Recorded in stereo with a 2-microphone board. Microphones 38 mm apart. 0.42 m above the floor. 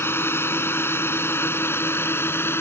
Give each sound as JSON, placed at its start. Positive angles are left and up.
{"t": 0.0, "sound": "a drone", "side_deg": 75}